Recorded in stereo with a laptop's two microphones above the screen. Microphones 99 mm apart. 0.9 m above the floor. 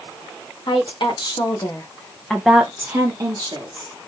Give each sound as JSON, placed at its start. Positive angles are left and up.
{"t": 0.7, "sound": "a woman speaking", "side_deg": 55, "distance_m": 1.5}